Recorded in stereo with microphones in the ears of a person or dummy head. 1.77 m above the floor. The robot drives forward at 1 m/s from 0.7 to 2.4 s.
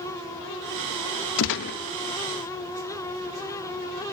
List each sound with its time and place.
1.4 s a gunshot: 75° left (ahead or behind), 0.6 m; by 1.8 s 45° left (ahead or behind), 0.8 m